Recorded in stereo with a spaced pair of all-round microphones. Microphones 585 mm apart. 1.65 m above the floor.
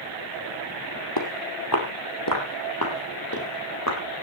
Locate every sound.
1.2 s footsteps: 40° left (ahead or behind), 2.5 m; by 4.0 s 30° left (ahead or behind), 4 m